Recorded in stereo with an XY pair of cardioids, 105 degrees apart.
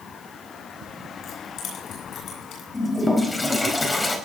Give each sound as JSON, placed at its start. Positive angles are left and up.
{"t": 1.2, "sound": "keys jangling", "azimuth_deg": 65, "distance_m": 9.0}
{"t": 2.7, "sound": "a toilet flushing", "azimuth_deg": 20, "distance_m": 4.0}